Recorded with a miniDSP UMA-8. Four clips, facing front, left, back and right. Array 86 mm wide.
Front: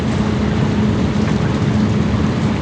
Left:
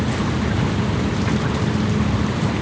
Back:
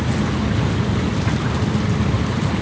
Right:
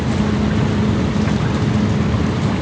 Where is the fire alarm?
I don't hear a fire alarm.